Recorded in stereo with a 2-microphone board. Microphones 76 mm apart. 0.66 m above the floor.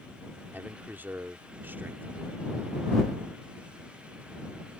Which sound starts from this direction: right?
A man speaking, at 0.5 s.